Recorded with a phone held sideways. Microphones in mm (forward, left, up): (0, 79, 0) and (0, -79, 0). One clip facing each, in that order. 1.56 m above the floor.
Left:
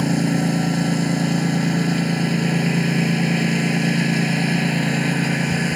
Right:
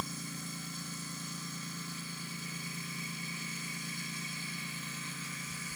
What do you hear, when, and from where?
0.0 s a lawn mower: 80° left